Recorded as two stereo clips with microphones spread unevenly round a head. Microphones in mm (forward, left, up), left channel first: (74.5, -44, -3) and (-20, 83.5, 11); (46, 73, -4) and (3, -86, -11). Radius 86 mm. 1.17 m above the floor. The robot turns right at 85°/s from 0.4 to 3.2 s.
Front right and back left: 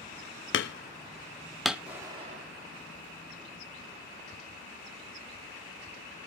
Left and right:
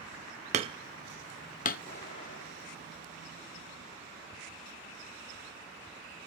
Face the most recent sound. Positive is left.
turn(degrees=155)